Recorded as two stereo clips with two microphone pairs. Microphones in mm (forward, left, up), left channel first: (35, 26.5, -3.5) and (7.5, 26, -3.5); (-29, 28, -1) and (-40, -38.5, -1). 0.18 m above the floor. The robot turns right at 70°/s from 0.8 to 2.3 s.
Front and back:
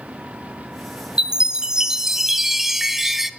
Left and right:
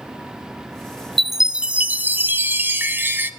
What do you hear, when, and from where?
1.2 s a chime: 175° left, 0.5 m; by 3.3 s 110° right, 0.5 m